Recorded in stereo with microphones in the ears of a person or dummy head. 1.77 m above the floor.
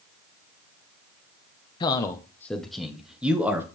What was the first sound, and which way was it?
A man speaking, 30° left (ahead or behind).